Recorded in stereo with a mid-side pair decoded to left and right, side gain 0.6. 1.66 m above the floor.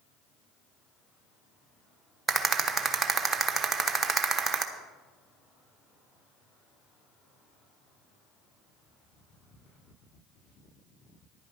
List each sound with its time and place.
2.3 s a rattle: 30° right, 1.1 m